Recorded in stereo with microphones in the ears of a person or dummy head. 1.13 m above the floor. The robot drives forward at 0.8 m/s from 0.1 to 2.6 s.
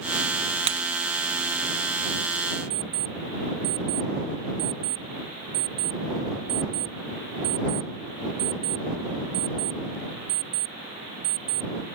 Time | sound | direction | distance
0.7 | breaking glass | 35° right (ahead or behind) | ?
2.7 | an alarm clock | 35° right (ahead or behind) | ?